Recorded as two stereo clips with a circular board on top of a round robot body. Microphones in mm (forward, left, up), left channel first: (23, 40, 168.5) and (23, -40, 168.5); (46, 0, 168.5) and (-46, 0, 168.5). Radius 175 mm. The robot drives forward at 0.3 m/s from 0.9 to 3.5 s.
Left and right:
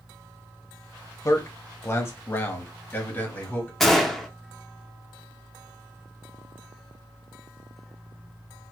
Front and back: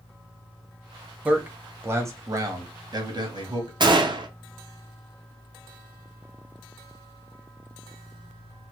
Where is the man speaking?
110° left, 0.8 m; by 3.7 s 155° left, 1.1 m.